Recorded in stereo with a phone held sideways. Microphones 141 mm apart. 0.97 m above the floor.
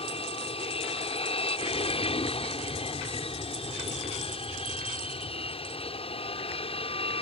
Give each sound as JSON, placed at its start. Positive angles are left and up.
{"t": 0.0, "sound": "an aircraft", "side_deg": 45}